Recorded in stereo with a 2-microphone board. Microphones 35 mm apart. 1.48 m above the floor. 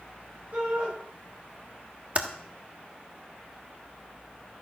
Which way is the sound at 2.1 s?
35° right (ahead or behind).